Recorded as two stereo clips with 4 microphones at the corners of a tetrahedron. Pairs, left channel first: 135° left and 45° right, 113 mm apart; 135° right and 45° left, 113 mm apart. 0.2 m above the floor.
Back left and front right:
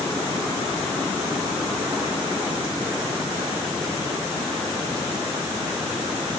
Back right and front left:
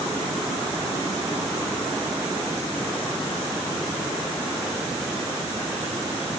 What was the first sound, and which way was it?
Only background noise.